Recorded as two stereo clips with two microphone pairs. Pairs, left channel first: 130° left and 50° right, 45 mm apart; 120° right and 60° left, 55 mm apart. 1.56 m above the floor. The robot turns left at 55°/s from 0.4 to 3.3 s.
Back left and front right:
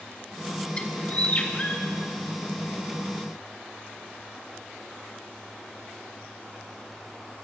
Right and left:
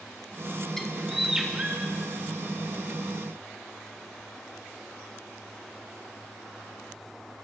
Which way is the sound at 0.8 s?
170° left.